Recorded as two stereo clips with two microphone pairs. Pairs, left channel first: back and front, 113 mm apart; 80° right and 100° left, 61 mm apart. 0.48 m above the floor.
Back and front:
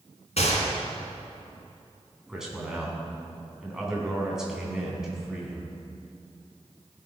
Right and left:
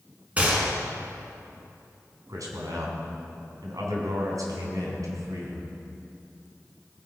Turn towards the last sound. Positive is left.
turn(degrees=85)